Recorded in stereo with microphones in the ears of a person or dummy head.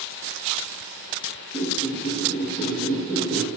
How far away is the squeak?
About 1.9 m.